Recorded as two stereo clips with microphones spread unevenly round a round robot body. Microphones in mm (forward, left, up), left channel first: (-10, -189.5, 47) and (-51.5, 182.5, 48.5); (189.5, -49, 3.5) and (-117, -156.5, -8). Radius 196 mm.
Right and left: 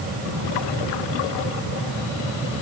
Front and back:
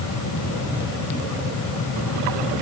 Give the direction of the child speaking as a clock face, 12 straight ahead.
I don't hear a child speaking.